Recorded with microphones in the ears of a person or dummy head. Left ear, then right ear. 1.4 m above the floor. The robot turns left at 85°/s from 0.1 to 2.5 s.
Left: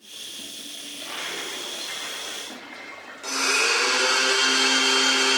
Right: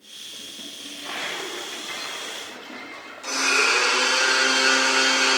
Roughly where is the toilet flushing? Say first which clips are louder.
Right 2 dB; right.